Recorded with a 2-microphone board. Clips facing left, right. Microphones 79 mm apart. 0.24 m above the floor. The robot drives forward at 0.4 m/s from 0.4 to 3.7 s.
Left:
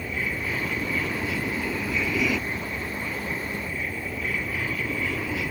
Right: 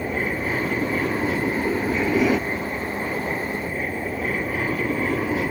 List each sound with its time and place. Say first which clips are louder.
0.0 s an aircraft: right 5 dB; 45° right (ahead or behind)